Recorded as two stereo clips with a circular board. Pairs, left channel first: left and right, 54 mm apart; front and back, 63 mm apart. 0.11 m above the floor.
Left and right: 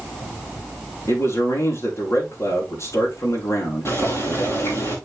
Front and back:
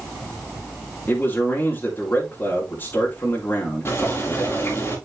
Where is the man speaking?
60° left, 7 m.